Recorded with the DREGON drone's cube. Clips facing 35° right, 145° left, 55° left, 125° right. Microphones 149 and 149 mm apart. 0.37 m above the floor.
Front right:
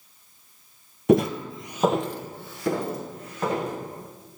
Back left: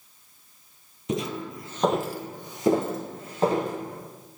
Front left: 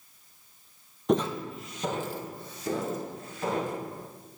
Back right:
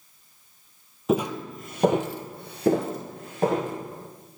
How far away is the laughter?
I don't hear laughter.